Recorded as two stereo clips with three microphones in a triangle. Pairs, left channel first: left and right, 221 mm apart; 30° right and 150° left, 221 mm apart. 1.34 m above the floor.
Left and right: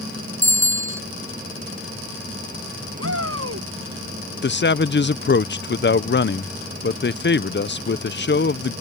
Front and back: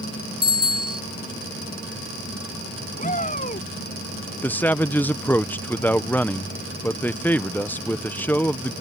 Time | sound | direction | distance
0.4 | a bicycle bell | 165° right | ?
3.0 | a shout | 85° right | ?
4.4 | a man speaking | 50° left | ?